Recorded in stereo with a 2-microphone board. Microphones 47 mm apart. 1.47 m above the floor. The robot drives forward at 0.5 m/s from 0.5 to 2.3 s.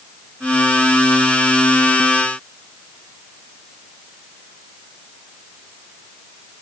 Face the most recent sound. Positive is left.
No sound to turn to.